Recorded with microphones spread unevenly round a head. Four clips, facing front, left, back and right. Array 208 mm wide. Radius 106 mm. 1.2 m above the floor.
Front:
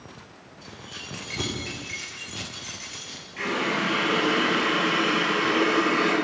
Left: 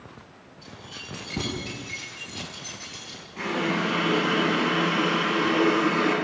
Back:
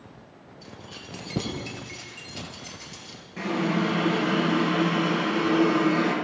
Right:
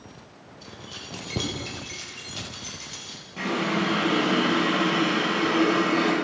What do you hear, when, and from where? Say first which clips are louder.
0.6 s keys jangling: right 1 dB, front 1 dB; 140° right, 3.5 m
3.4 s a running tap: right 1 dB, back 1 dB; 135° right, 6 m